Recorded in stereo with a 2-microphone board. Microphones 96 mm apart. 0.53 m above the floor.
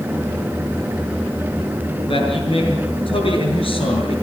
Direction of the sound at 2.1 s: 65° left (ahead or behind).